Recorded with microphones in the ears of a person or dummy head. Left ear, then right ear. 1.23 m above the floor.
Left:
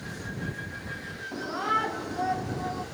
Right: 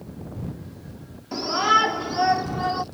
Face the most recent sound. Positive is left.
turn(degrees=-55)  # may be behind; listen again after turning